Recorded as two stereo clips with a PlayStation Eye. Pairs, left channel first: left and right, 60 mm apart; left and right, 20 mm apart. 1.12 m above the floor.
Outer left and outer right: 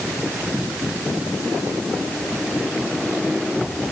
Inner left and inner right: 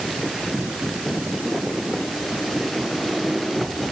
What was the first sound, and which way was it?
Only background noise.